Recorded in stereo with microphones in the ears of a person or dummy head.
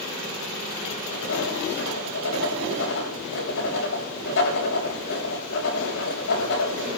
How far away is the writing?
About 7.5 m.